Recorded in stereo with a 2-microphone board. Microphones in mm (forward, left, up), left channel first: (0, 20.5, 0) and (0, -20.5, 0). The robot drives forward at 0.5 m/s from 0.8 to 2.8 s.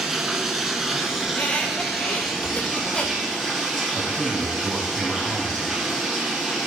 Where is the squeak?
35° left (ahead or behind), 1.6 m; by 3.2 s 25° left (ahead or behind), 2 m.